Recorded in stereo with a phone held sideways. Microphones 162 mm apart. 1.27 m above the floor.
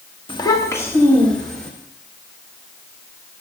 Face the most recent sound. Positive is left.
turn(degrees=5)  # may be behind; listen again after turning